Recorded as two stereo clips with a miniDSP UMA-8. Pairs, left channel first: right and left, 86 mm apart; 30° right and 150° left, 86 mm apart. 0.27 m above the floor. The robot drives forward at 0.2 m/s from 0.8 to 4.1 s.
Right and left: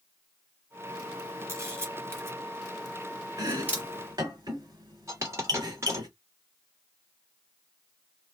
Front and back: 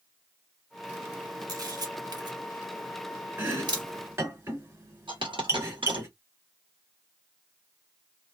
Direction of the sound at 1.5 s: 135° left.